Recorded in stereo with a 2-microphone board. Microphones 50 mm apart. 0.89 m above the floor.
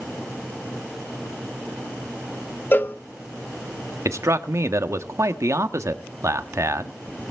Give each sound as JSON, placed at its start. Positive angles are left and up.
{"t": 2.7, "sound": "a cowbell", "side_deg": 45, "distance_m": 1.2}
{"t": 4.0, "sound": "a man speaking", "side_deg": -75, "distance_m": 1.3}